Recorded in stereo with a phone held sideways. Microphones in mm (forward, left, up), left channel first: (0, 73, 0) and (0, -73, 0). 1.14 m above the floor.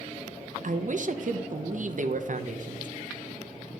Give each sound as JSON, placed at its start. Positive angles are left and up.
{"t": 0.6, "sound": "a man speaking", "side_deg": -60, "distance_m": 0.6}